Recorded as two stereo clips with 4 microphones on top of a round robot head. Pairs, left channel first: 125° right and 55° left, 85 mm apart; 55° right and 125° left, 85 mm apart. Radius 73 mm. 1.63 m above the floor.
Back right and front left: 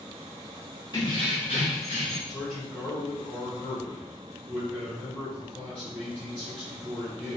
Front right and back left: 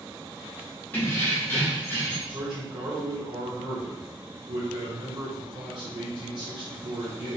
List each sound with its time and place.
0.9 s keys jangling: 105° right, 0.7 m; by 2.2 s 120° right, 1.1 m
2.3 s a man speaking: 160° left, 1.9 m